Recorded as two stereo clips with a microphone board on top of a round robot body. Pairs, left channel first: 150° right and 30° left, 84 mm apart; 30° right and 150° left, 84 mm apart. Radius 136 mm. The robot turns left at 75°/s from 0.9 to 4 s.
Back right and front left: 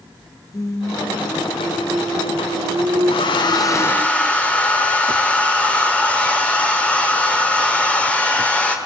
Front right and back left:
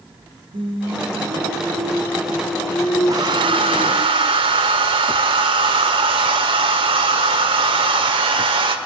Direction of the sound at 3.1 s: 155° right.